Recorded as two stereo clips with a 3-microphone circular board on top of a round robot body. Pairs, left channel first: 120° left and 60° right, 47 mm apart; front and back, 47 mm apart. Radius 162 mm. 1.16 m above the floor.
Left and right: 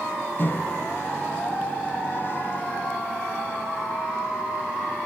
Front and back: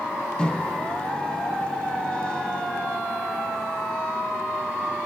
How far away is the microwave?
About 1.4 m.